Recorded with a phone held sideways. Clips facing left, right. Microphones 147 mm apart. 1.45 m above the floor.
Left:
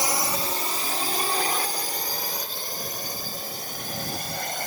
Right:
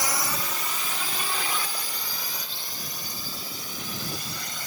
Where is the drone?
25° left (ahead or behind); by 4.7 s 50° left (ahead or behind).